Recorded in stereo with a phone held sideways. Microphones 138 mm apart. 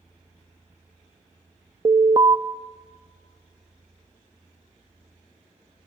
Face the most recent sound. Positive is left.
turn(degrees=-35)  # may be behind; listen again after turning